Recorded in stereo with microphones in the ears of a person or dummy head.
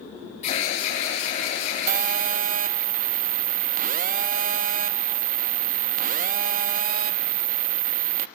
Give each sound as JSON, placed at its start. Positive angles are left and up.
{"t": 0.4, "sound": "an alarm", "side_deg": 45, "distance_m": 9.0}
{"t": 1.9, "sound": "a phone buzzing", "side_deg": -45, "distance_m": 0.9}